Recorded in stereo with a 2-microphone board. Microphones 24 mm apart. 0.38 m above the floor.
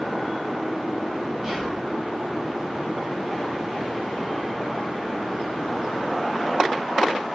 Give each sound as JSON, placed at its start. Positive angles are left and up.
{"t": 1.4, "sound": "whispering", "side_deg": -30, "distance_m": 1.2}